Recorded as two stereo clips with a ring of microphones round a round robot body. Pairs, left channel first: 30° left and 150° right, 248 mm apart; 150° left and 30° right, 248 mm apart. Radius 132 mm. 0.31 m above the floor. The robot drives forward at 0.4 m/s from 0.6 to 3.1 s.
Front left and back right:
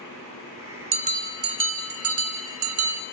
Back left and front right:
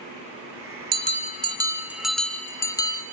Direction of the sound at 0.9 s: 85° right.